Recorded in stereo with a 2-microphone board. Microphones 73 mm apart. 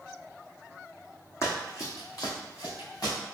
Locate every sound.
1.4 s running footsteps: 40° left (ahead or behind), 1.3 m; by 3.1 s 50° left (ahead or behind), 3 m